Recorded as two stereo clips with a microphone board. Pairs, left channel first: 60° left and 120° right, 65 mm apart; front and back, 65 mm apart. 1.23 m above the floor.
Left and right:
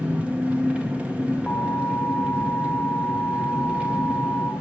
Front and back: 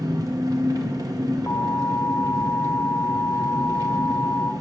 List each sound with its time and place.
0.0 s an engine running: 170° left, 0.8 m
1.5 s an alarm: 5° right, 0.7 m